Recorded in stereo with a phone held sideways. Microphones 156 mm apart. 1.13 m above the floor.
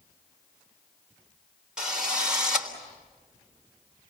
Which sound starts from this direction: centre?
A drill, at 1.8 s.